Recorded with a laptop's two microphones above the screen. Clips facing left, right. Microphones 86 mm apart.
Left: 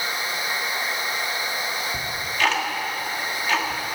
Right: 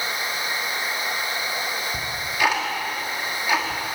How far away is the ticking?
About 1.5 m.